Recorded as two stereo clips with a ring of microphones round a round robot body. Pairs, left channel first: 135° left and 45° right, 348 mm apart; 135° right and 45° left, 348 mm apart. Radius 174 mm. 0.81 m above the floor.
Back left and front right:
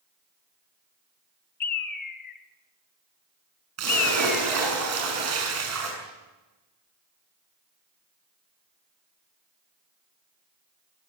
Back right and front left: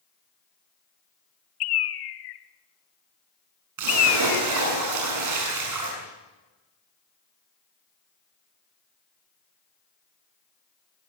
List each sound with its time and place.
1.6 s a bird: 160° right, 1.4 m
3.8 s a splash: 5° left, 7 m